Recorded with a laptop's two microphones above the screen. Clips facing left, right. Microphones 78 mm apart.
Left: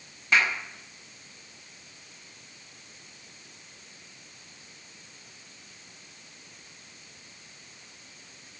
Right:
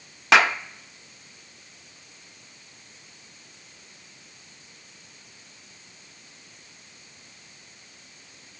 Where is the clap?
75° right (ahead or behind), 0.6 m.